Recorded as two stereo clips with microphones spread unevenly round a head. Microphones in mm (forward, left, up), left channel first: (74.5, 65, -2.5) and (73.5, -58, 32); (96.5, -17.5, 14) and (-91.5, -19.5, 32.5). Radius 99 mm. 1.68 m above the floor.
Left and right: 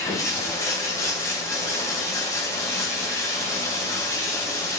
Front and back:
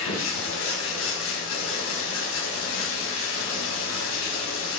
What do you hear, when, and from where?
0.0 s running water: 20° left, 4 m